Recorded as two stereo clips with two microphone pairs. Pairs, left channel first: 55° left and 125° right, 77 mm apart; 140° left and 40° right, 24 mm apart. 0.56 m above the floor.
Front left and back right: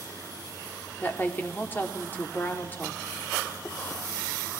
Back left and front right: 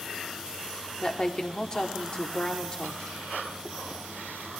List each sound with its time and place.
1.0 s a woman speaking: 110° left, 1.1 m